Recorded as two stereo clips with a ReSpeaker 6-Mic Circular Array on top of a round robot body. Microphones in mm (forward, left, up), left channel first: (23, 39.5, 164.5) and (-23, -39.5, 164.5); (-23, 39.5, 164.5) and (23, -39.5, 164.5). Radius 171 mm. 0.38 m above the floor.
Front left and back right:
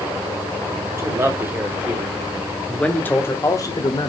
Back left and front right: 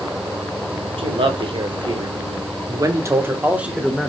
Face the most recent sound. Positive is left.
turn(degrees=30)